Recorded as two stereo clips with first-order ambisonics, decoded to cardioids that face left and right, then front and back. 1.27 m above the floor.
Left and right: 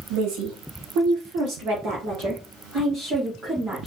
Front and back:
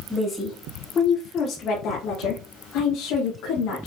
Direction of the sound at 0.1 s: 85° right.